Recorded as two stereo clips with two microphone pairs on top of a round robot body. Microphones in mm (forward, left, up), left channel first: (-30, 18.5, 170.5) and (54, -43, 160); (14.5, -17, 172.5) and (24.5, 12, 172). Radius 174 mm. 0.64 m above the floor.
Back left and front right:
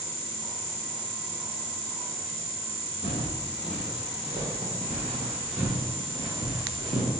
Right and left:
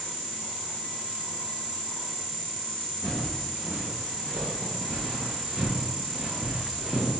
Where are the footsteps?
110° left, 1.5 m; by 7.1 s 5° left, 1.3 m.